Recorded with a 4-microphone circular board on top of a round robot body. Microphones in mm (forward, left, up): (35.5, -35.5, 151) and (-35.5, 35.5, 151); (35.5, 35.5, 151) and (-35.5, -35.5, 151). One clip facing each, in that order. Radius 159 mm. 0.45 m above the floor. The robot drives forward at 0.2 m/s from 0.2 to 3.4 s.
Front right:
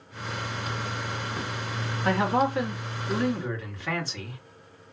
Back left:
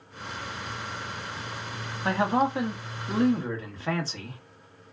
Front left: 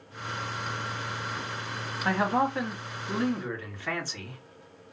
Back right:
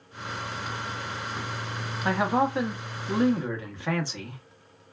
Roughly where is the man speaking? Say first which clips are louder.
Even, back right 2 dB; behind.